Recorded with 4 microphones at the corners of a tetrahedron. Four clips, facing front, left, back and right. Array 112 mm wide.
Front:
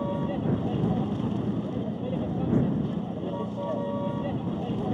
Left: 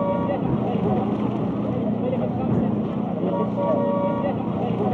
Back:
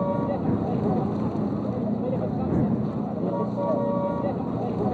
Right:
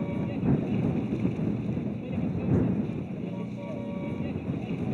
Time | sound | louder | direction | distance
0.0 | a vehicle | left 8 dB, back 4 dB | 110° left | ?